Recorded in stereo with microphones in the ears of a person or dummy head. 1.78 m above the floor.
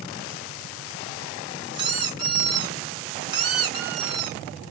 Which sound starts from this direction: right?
A squeak, at 1.7 s.